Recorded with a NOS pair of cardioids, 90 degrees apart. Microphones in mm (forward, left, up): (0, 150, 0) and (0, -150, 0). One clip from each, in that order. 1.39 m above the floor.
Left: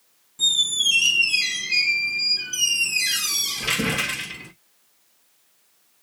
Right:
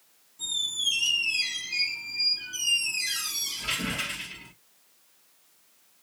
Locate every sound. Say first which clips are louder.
0.4 s a squeak: left 8 dB; 65° left, 0.7 m